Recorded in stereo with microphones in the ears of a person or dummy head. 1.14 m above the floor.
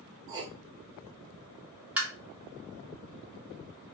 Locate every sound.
0.3 s writing: 20° right (ahead or behind), 0.6 m
2.0 s tapping: 5° right (ahead or behind), 1.0 m